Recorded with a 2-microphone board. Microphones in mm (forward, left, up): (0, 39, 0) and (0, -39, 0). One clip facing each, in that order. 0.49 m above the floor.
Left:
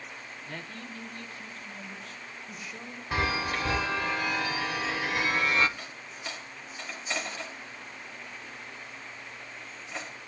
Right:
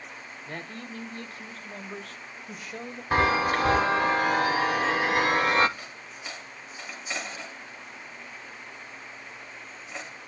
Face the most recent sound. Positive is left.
turn(degrees=-5)  # may be behind; listen again after turning